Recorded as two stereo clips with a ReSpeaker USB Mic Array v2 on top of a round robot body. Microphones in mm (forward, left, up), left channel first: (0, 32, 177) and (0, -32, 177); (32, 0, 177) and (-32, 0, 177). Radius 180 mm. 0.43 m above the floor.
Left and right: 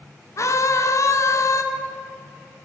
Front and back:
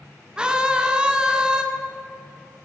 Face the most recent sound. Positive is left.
turn(degrees=105)